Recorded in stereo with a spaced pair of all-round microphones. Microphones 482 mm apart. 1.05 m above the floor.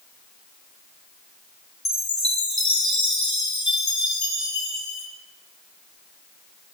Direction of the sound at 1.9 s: 35° left (ahead or behind).